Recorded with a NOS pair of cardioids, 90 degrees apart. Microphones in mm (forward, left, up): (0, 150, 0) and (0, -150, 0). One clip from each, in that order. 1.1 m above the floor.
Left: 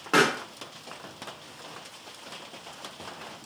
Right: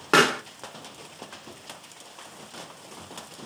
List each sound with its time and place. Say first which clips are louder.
0.1 s a pop: right 3 dB; 30° right, 0.8 m